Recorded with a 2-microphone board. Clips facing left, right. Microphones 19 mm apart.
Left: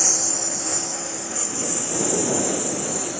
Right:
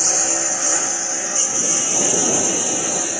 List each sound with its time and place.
0.0 s a lawn mower: 60° right (ahead or behind); by 3.2 s 45° right (ahead or behind)